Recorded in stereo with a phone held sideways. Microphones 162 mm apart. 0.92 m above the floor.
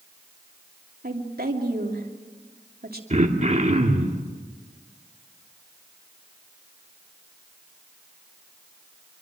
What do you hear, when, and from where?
1.0 s a woman speaking: 70° right (ahead or behind), 2.5 m
3.1 s throat clearing: 45° right (ahead or behind), 2 m